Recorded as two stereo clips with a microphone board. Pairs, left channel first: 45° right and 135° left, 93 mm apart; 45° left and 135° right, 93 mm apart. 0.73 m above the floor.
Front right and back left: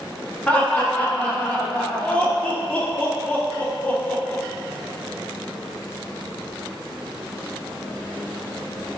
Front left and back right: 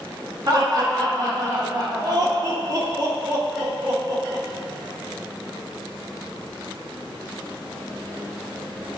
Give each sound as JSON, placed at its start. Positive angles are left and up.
{"t": 0.5, "sound": "laughter", "azimuth_deg": -115, "distance_m": 1.1}